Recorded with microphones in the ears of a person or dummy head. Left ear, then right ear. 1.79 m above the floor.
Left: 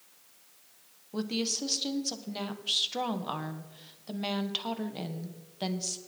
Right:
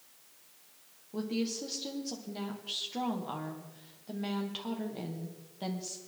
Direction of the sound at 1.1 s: 30° left (ahead or behind).